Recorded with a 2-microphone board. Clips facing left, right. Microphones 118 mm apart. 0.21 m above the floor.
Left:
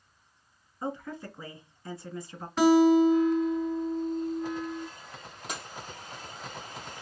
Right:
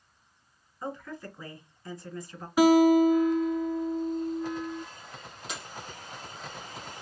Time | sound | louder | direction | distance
0.8 | a woman speaking | left 2 dB | 30° left (ahead or behind) | 2 m
2.6 | a guitar | right 1 dB | 10° right (ahead or behind) | 0.8 m
5.5 | breaking glass | left 2 dB | 45° left (ahead or behind) | 3 m